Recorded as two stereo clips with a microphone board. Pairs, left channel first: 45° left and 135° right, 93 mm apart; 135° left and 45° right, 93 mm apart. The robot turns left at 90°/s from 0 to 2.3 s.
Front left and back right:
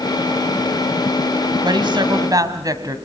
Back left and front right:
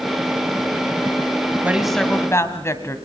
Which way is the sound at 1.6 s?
110° right.